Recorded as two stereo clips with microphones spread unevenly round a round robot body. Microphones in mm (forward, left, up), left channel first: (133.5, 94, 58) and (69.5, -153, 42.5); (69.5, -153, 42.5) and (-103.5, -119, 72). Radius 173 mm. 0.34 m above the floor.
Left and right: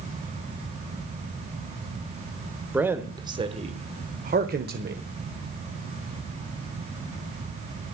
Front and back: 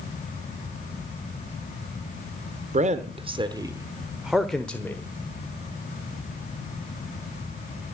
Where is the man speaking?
Straight behind, 1.0 m; by 5.0 s 80° right, 1.3 m.